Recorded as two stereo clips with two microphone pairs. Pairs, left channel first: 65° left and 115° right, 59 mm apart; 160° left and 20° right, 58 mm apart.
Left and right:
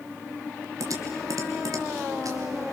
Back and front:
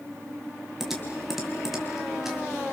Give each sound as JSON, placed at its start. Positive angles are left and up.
{"t": 0.8, "sound": "typing on a keyboard", "azimuth_deg": -105, "distance_m": 3.5}